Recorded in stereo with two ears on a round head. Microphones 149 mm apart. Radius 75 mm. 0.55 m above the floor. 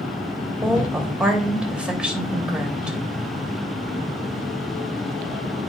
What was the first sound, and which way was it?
A woman speaking, 5° right (ahead or behind).